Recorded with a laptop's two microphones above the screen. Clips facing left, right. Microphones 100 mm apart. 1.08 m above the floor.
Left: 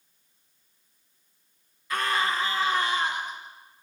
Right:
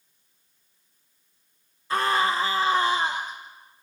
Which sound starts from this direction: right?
A scream, at 1.9 s.